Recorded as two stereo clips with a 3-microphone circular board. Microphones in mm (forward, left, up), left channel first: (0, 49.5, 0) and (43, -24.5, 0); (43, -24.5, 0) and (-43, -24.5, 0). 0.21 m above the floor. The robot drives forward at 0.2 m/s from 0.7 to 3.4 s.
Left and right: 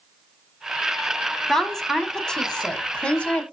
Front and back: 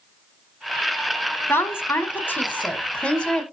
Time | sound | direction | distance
1.5 | a woman speaking | 35° left | 1.2 m